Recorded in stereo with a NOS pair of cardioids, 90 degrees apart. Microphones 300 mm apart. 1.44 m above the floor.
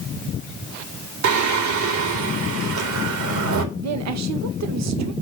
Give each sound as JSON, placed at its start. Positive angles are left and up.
{"t": 1.2, "sound": "singing", "azimuth_deg": -70, "distance_m": 2.5}
{"t": 3.8, "sound": "a woman speaking", "azimuth_deg": -60, "distance_m": 1.2}